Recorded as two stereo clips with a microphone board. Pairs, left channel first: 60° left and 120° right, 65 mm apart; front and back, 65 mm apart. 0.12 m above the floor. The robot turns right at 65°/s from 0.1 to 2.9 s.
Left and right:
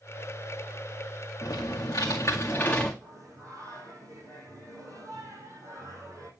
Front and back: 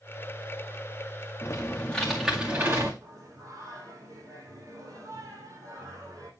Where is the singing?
150° right, 5 m.